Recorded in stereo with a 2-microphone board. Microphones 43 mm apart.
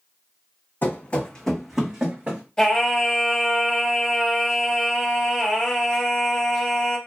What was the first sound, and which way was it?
Running footsteps, 45° left (ahead or behind).